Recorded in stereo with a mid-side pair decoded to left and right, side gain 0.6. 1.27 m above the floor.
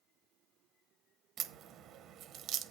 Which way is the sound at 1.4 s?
55° right.